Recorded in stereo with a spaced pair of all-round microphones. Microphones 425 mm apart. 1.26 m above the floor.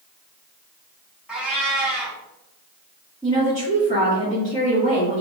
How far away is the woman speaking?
About 1.7 m.